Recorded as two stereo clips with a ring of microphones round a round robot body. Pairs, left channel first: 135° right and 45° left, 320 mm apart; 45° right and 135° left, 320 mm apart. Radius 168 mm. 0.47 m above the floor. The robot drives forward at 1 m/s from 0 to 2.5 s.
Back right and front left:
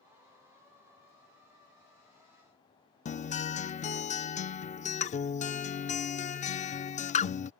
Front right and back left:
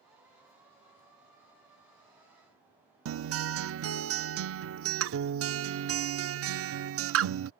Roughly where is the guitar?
Behind.